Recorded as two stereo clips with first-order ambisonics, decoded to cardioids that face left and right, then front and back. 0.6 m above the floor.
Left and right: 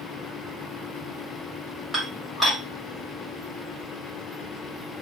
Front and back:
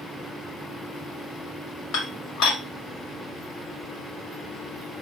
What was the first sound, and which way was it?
Dishes clattering, 5° left.